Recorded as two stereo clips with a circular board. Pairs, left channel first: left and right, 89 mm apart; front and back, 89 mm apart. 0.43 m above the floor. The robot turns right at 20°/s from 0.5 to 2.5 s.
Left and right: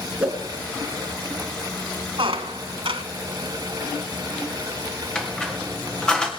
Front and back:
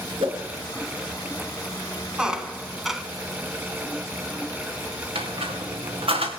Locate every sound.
0.2 s a whoosh: 170° right, 2.5 m
2.2 s a squeak: 100° right, 1.0 m; by 3.0 s 95° right, 1.0 m
5.2 s a squeak: 170° left, 3 m